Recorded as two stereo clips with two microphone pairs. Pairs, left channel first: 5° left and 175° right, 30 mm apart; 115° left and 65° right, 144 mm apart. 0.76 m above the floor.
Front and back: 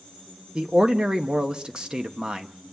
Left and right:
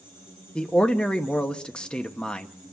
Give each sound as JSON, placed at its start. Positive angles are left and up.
{"t": 0.6, "sound": "a man speaking", "azimuth_deg": -170, "distance_m": 0.9}